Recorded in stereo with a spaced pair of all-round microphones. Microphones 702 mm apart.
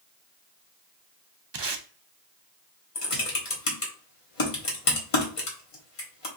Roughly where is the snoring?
No snoring in this recording.